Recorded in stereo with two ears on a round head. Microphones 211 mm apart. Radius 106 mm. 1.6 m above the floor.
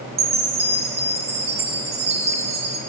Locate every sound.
0.2 s a chime: 25° right (ahead or behind), 0.6 m